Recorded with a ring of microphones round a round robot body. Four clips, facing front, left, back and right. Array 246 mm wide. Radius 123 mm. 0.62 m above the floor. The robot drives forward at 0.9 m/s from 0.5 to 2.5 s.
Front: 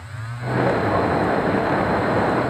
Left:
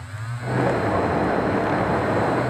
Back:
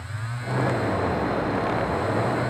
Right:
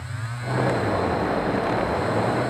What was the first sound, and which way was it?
Only background noise.